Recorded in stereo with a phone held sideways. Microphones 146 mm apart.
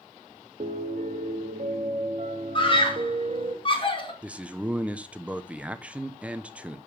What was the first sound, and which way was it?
A piano, 50° right (ahead or behind).